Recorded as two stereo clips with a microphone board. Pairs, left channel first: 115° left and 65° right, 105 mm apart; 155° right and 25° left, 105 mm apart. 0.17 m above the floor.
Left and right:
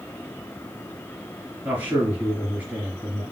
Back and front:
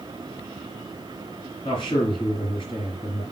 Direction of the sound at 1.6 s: 140° right.